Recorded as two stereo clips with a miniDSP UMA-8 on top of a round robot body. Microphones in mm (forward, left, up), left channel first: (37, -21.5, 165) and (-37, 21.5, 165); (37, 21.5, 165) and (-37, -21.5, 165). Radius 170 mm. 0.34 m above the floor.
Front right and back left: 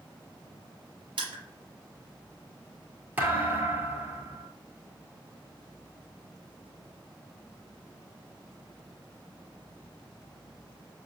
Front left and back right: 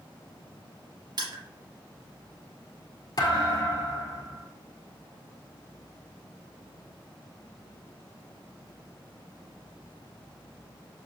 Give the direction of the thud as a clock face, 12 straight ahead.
9 o'clock.